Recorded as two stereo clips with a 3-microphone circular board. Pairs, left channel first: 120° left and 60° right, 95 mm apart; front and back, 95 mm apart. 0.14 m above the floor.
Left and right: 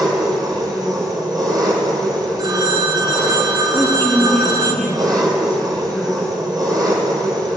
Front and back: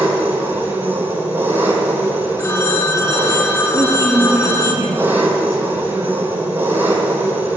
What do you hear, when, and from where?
0.0 s an engine running: 110° right, 1.2 m
2.4 s a phone ringing: 45° right, 0.8 m
3.7 s a woman speaking: 175° left, 1.5 m